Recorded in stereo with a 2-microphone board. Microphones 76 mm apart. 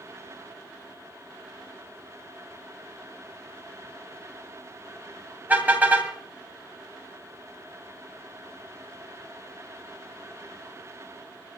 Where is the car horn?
20° right (ahead or behind), 2 m.